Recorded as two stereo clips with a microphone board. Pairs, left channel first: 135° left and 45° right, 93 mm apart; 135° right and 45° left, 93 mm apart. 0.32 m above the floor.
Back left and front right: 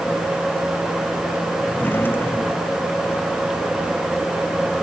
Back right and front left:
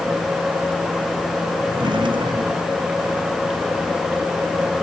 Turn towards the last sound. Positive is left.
turn(degrees=70)